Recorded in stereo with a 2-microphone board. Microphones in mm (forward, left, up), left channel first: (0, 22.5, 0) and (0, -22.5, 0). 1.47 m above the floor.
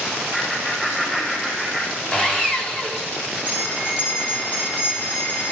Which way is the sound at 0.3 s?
15° left (ahead or behind).